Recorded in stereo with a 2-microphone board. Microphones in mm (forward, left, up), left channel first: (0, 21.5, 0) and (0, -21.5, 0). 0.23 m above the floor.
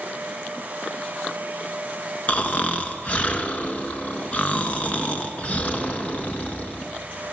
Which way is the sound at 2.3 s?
35° left (ahead or behind).